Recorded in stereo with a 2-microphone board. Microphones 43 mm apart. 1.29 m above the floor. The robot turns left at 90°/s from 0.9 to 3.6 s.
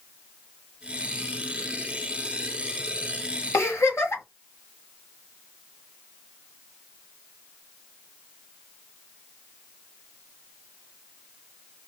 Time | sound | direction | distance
3.5 | a giggle | 70° left (ahead or behind) | 1.3 m